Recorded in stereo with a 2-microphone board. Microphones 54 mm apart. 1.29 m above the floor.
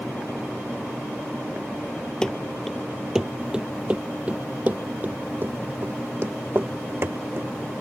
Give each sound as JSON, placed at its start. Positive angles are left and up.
{"t": 2.2, "sound": "running footsteps", "side_deg": 15}